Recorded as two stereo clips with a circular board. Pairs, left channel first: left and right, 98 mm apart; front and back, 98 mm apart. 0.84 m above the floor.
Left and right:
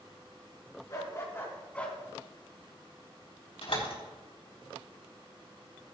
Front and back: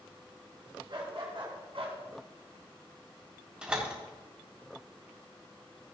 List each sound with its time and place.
0.9 s a dog barking: 145° left, 3 m; by 2.0 s 175° left, 1.8 m
3.6 s a door slam: 100° left, 3.5 m